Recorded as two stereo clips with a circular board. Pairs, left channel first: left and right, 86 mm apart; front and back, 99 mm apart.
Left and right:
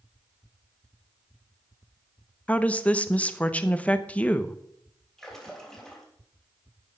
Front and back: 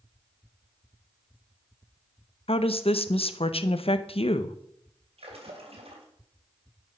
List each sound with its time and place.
2.5 s a woman speaking: 15° left, 0.7 m
5.2 s a splash: 175° left, 3 m